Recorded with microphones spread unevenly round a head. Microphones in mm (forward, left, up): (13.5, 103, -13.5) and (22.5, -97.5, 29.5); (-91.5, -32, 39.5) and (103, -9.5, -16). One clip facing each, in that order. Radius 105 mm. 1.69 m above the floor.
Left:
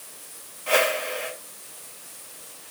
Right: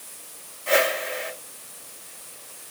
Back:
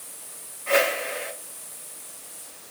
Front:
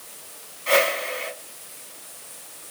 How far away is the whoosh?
About 3.5 m.